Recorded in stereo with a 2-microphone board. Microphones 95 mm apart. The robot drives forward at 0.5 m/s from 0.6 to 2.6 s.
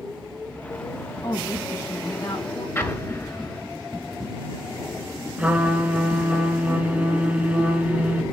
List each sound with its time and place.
1.2 s a woman speaking: 45° left (ahead or behind), 5.5 m
2.8 s an explosion: 25° left (ahead or behind), 1.2 m
5.4 s a trumpet: 15° right (ahead or behind), 1.4 m